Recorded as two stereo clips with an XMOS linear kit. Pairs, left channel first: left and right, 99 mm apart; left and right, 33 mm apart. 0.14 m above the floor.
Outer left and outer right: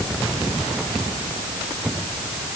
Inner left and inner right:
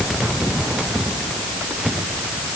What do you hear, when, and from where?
Only background noise.